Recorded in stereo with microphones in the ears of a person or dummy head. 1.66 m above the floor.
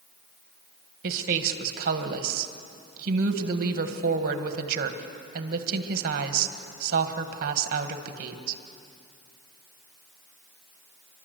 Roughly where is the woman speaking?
Right.